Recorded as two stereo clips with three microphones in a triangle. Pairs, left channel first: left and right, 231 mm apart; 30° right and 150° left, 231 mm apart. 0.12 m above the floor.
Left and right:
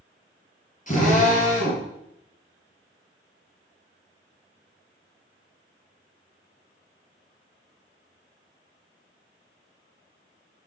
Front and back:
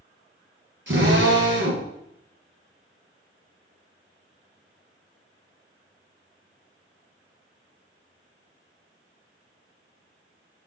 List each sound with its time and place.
0.9 s a drill: 135° left, 3 m